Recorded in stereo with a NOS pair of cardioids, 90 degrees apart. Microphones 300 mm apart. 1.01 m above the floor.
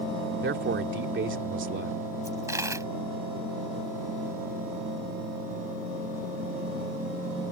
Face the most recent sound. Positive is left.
turn(degrees=-10)